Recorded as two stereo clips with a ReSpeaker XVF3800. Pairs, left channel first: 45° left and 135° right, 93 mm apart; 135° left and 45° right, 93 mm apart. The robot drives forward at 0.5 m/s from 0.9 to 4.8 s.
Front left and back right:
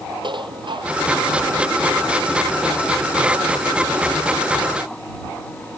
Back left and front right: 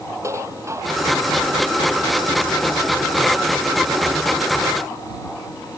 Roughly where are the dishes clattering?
Right.